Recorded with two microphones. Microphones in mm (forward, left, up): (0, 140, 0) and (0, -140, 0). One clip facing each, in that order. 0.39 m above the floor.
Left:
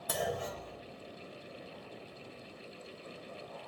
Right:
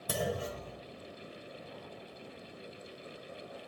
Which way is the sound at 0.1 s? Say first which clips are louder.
Right 1 dB; 35° right (ahead or behind).